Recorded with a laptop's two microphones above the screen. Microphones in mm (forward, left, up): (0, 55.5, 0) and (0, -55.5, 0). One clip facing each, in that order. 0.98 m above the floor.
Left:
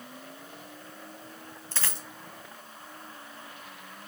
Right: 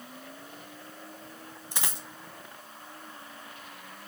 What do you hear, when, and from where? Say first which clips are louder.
1.7 s a dropped coin: right 1 dB; 20° right (ahead or behind), 1.8 m